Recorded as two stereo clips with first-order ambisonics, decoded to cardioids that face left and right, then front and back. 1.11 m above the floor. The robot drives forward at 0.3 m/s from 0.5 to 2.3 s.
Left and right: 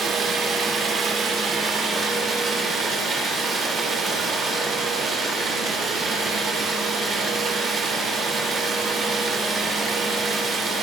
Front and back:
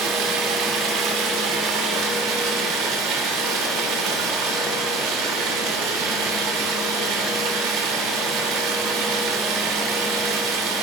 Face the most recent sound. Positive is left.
turn(degrees=-155)